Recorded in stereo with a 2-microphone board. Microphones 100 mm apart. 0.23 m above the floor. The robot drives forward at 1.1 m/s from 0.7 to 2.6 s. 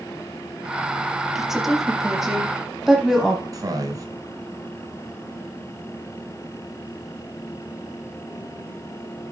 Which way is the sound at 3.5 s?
40° right (ahead or behind).